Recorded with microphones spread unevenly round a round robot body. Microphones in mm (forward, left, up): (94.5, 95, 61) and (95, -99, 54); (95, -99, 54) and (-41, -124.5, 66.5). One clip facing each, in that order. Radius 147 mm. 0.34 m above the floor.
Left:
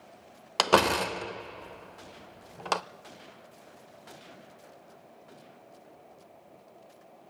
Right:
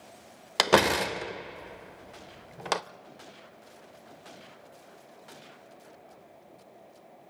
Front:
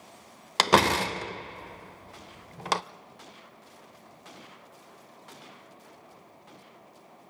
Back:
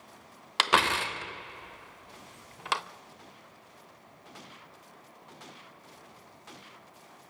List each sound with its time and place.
0.6 s a door slam: 15° right, 0.9 m